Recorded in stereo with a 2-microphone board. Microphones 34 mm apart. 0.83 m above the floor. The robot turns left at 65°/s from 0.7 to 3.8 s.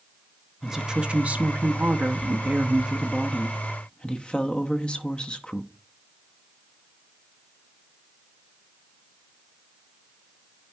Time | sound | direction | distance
0.6 | a woman speaking | 15° right | 0.7 m